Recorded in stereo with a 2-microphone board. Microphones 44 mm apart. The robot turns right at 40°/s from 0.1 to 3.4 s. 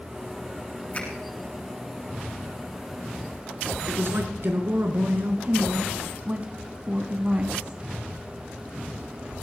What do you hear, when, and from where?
0.9 s a finger snap: 30° left (ahead or behind), 8 m; by 1.1 s 40° left (ahead or behind), 8 m
3.9 s a man speaking: 55° right (ahead or behind), 3 m
5.4 s a woman speaking: 30° right (ahead or behind), 1.5 m